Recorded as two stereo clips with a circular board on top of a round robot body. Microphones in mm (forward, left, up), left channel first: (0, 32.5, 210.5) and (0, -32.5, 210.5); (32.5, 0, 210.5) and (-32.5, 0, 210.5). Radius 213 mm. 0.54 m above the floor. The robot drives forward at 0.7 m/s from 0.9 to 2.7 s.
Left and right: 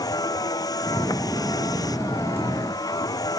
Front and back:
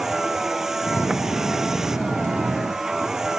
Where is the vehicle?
95° left; by 3.4 s 100° left.